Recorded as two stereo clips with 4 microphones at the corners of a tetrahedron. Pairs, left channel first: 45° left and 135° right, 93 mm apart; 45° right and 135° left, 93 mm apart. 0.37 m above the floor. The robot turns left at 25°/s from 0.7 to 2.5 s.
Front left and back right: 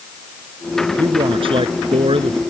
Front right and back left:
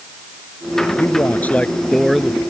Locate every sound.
1.0 s a man speaking: 105° right; by 2.4 s 140° right